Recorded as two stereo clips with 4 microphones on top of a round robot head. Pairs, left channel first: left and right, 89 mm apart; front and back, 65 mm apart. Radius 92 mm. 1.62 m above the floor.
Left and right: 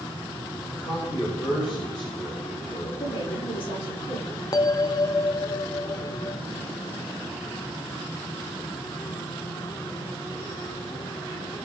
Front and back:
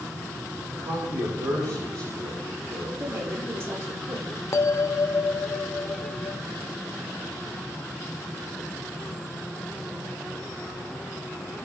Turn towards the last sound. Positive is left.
turn(degrees=40)